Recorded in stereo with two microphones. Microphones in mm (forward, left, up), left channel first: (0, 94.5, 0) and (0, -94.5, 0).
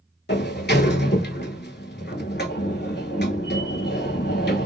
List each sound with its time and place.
0.3 s a sliding door: 65° left (ahead or behind), 0.6 m